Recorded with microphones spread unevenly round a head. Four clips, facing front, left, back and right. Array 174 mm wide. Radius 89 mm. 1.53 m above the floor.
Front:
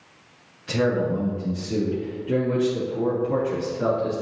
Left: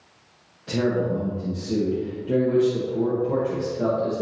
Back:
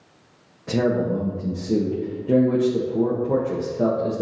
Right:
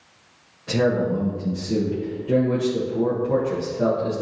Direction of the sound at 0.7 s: Straight behind.